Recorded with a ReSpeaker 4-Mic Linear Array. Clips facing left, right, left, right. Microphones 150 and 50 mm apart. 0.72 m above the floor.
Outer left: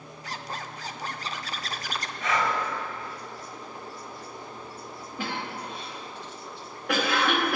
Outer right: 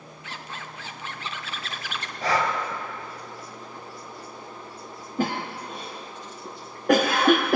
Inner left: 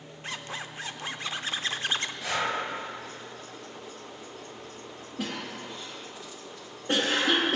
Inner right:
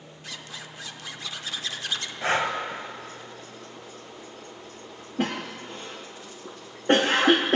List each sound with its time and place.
0.2 s a zipper: 40° left (ahead or behind), 0.5 m
2.2 s breathing: 35° right (ahead or behind), 1.6 m
5.2 s a cough: 45° right (ahead or behind), 0.7 m